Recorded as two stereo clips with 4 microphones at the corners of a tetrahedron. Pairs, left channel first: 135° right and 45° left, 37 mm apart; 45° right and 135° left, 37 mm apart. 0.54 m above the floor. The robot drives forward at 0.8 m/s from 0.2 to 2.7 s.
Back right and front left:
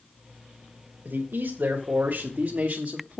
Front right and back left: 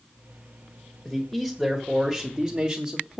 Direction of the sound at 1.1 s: 40° left.